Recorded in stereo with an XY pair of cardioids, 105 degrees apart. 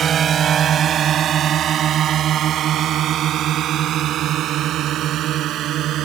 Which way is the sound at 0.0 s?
50° right.